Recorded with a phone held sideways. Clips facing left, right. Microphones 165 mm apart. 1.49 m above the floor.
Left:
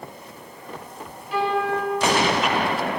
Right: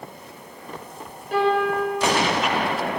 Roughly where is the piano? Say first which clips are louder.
Right 3 dB; right.